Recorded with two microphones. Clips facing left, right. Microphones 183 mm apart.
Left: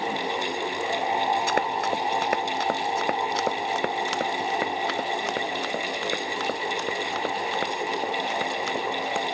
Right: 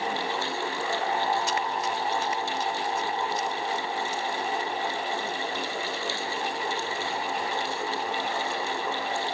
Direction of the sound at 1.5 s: 60° left (ahead or behind).